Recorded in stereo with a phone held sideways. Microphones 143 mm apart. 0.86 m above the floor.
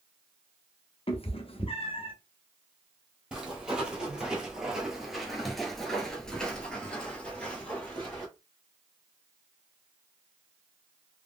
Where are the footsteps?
5° right (ahead or behind), 1.5 m; by 8.3 s 10° left (ahead or behind), 1.5 m.